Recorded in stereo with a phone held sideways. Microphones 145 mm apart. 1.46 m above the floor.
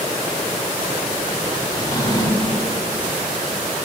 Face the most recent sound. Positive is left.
turn(degrees=25)  # may be behind; listen again after turning